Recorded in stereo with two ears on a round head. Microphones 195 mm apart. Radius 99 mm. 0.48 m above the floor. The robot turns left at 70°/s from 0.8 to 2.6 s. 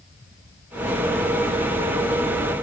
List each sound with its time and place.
Only background noise.